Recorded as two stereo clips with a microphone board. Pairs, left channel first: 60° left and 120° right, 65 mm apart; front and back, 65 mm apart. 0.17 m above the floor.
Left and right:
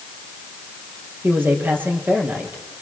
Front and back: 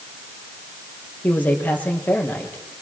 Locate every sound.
1.2 s a man speaking: 60° right, 5 m